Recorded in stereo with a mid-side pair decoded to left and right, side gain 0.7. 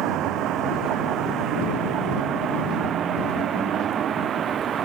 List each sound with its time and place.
0.0 s a vehicle: 55° right; by 4.8 s 40° right